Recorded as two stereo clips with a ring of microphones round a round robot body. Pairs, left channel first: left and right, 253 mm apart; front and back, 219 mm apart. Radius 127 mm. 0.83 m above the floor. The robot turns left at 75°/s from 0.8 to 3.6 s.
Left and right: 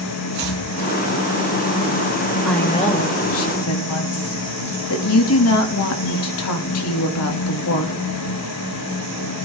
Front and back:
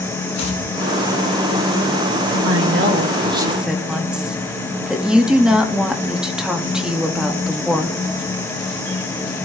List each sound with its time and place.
0.3 s chopping: 40° right, 3 m
2.5 s a woman speaking: straight behind, 1.6 m; by 8.0 s 95° left, 1.6 m